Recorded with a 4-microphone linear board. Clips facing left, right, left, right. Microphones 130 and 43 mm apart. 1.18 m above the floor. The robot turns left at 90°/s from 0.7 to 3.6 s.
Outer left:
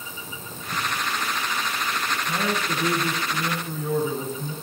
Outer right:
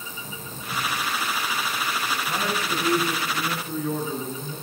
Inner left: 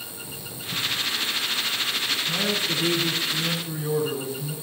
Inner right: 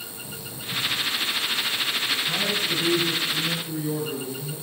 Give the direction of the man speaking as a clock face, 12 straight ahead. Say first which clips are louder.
Outer left 2 dB, even; 5 o'clock.